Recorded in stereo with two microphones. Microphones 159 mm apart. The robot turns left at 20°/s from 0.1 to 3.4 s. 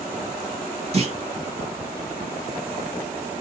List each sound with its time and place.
0.9 s a clunk: 40° right (ahead or behind), 1.3 m